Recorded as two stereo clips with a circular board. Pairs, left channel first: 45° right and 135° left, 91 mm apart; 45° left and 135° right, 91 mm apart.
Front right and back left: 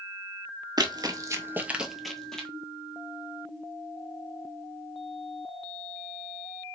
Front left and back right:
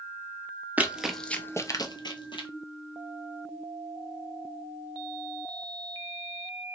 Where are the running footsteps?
155° left, 0.6 m; by 2.5 s 35° left, 0.9 m.